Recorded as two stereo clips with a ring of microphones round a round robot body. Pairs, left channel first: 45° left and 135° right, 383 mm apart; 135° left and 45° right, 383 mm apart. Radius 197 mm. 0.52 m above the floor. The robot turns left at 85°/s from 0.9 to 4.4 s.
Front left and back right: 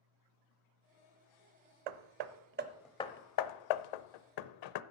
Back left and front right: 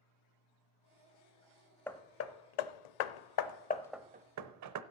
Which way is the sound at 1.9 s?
140° right.